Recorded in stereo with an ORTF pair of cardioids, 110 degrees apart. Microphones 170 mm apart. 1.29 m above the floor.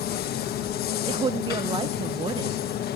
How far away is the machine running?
About 1.3 m.